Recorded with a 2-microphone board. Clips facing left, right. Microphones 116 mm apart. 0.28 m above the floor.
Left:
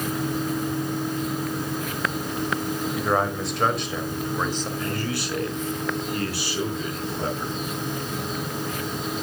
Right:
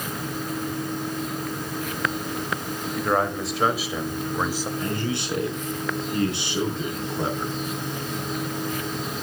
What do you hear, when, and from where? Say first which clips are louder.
3.0 s a man speaking: right 2 dB; 5° left (ahead or behind), 1.6 m; by 4.7 s 10° right (ahead or behind), 1.7 m
4.8 s a man speaking: right 1 dB; 25° right (ahead or behind), 3 m